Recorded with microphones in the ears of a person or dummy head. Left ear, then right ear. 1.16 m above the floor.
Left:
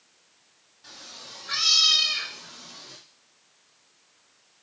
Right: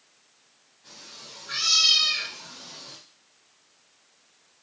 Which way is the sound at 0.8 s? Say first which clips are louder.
Left 2 dB; 40° left (ahead or behind).